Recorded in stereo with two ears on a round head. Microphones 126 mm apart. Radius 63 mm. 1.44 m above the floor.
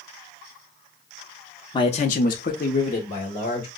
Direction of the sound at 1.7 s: 30° left (ahead or behind).